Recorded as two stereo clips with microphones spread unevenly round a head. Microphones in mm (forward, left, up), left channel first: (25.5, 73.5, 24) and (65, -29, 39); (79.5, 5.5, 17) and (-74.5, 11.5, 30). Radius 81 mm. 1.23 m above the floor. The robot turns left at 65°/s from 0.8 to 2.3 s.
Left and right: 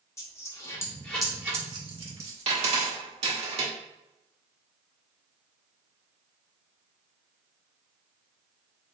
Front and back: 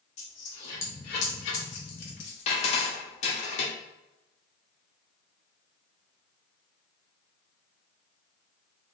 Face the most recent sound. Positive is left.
turn(degrees=-50)